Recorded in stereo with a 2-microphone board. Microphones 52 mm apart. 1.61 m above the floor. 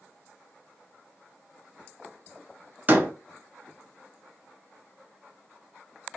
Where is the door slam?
35° right (ahead or behind), 0.6 m.